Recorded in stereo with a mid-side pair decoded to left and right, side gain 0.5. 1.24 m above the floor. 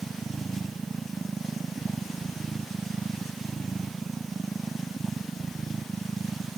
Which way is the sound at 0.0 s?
25° right.